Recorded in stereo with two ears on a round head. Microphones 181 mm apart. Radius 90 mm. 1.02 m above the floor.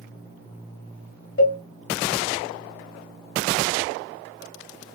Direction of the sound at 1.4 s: 65° left (ahead or behind).